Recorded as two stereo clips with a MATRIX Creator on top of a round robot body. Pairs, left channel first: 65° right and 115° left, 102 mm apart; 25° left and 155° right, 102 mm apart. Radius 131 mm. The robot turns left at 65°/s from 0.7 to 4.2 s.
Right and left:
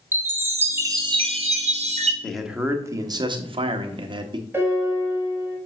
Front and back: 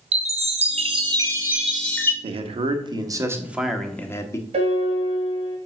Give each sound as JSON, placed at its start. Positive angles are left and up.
{"t": 0.1, "sound": "a chime", "azimuth_deg": 180, "distance_m": 1.3}
{"t": 2.2, "sound": "a man speaking", "azimuth_deg": -150, "distance_m": 1.1}
{"t": 4.5, "sound": "a piano", "azimuth_deg": 180, "distance_m": 1.4}